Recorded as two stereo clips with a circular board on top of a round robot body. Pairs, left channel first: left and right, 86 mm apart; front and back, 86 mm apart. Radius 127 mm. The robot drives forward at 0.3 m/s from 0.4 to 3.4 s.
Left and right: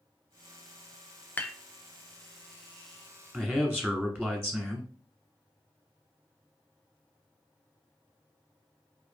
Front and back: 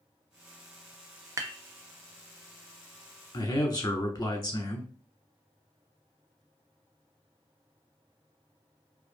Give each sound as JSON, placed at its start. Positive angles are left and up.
{"t": 1.4, "sound": "dishes clattering", "azimuth_deg": 150, "distance_m": 0.6}
{"t": 3.3, "sound": "a man speaking", "azimuth_deg": -5, "distance_m": 1.1}